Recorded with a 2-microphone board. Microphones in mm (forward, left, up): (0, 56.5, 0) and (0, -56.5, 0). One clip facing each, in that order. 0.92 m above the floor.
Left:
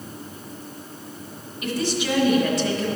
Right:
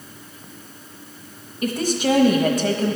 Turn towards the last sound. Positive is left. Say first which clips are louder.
# right 4 dB
turn(degrees=-45)  # may be behind; listen again after turning